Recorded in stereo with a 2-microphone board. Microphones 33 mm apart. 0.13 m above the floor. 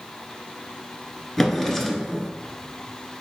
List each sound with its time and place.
1.4 s a drawer: 5° left (ahead or behind), 1.1 m